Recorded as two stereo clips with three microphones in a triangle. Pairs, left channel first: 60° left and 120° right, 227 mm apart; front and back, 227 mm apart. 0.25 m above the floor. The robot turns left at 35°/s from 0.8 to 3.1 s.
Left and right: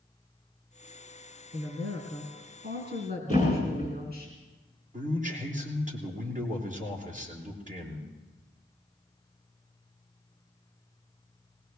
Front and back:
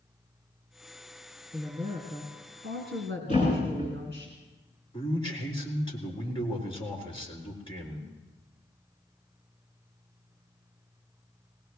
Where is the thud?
60° right, 9.5 m.